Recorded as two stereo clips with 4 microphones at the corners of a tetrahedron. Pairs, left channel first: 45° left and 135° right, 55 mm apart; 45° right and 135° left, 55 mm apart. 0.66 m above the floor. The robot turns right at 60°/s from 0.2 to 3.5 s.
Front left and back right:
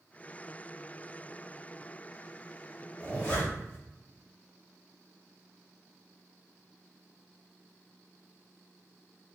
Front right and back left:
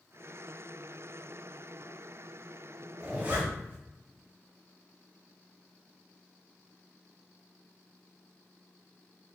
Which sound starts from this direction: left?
A zipper, at 3.0 s.